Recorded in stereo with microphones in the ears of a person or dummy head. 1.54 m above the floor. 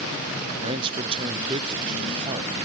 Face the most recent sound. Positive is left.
turn(degrees=-30)  # may be behind; listen again after turning